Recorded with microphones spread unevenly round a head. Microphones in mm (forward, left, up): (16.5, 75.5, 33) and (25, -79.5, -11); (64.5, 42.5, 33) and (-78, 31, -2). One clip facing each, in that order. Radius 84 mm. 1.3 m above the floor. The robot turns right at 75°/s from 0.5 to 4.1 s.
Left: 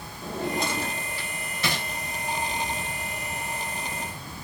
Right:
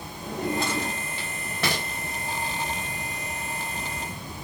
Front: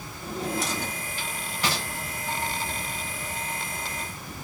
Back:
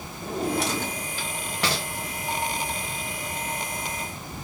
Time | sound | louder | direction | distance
0.2 | a drawer | right 1 dB, back 4 dB | 145° left | 1.2 m